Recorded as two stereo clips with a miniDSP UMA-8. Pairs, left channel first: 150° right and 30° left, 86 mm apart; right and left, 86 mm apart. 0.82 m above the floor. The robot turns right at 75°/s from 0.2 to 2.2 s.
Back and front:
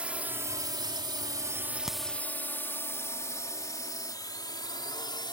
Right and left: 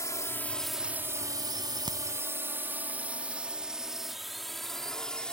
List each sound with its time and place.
0.0 s a drone: 45° right; by 5.3 s 170° right
1.9 s a crack: 115° left; by 2.0 s 125° left